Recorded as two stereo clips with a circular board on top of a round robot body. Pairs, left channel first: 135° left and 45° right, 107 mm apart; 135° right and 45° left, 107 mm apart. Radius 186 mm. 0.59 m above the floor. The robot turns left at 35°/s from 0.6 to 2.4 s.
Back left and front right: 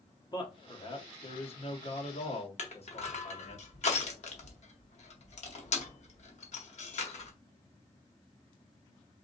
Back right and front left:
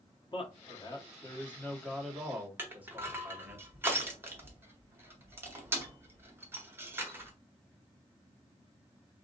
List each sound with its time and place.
0.3 s a man speaking: 175° right, 1.6 m; by 3.6 s 120° left, 1.6 m
2.6 s crushing: 115° left, 1.5 m